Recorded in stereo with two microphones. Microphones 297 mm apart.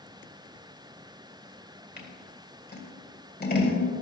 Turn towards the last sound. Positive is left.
turn(degrees=35)  # may be behind; listen again after turning